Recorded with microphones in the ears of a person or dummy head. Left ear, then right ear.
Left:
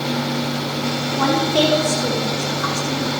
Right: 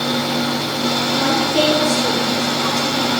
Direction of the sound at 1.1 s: 50° left (ahead or behind).